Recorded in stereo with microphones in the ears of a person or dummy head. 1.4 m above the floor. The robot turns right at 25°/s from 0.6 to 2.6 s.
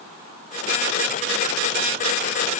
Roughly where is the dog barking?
No dog barking in this recording.